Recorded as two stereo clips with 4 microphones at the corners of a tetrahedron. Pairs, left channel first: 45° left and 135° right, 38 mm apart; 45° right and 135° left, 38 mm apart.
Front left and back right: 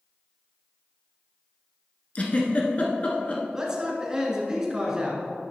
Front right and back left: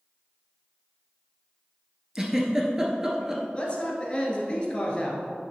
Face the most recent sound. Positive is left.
turn(degrees=-75)